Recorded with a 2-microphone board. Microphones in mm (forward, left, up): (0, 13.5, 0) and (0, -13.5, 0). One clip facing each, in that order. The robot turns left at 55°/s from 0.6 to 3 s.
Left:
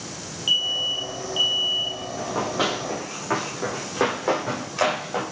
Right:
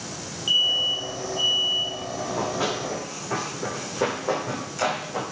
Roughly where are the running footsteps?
Left.